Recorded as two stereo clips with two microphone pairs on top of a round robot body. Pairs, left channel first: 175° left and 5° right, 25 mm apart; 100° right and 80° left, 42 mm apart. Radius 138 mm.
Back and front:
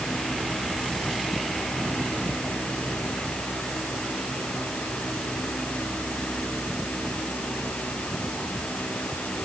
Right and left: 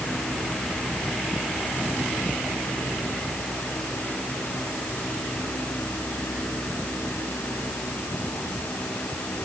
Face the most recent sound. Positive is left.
No sound to turn to.